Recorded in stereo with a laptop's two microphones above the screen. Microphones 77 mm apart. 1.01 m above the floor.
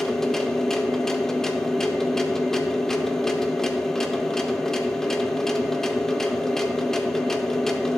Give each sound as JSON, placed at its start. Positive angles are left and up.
{"t": 0.0, "sound": "a machine running", "side_deg": 5, "distance_m": 0.7}